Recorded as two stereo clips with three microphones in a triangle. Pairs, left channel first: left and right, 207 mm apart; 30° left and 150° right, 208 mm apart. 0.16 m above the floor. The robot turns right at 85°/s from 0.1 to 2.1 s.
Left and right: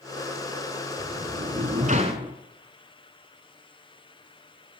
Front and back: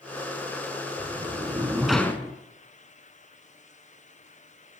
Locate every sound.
1.0 s a sliding door: 140° right, 1.1 m; by 2.3 s 45° right, 1.1 m